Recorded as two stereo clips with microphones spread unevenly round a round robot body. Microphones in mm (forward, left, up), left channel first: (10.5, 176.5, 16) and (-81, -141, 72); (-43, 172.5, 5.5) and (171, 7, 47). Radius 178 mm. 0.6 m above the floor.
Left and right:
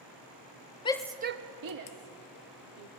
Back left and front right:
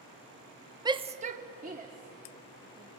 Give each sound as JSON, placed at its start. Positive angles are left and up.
{"t": 0.8, "sound": "a shout", "azimuth_deg": 40, "distance_m": 0.7}